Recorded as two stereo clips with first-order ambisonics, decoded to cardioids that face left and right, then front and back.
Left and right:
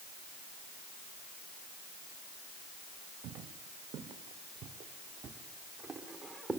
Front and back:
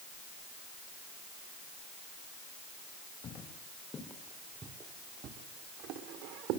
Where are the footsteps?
55° right, 3 m; by 6.6 s straight behind, 3.5 m.